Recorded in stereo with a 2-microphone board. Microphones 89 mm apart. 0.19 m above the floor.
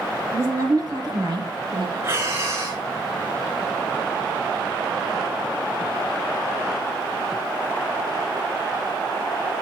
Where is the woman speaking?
35° right (ahead or behind), 2.5 m; by 1.9 s 70° right (ahead or behind), 3.5 m.